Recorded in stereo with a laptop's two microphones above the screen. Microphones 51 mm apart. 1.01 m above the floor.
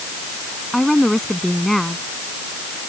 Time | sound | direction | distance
0.7 | a woman speaking | 5° left (ahead or behind) | ?